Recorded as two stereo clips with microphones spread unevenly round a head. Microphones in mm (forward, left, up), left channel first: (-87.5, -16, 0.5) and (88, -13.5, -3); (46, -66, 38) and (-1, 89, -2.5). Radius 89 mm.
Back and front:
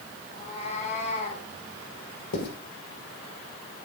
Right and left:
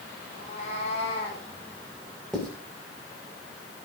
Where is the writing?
160° right, 5.5 m.